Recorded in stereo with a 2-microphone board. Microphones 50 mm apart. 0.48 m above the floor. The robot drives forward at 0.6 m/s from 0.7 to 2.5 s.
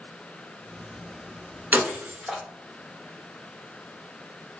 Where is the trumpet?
I don't hear a trumpet.